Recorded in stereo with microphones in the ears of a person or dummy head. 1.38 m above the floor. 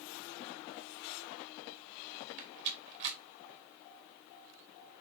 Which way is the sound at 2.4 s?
60° right (ahead or behind).